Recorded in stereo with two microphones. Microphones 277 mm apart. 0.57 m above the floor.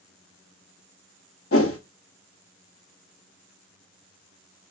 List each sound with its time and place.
1.5 s a whoosh: 55° left (ahead or behind), 0.7 m